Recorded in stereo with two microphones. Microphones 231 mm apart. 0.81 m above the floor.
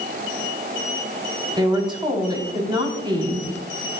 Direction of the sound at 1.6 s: 20° right (ahead or behind).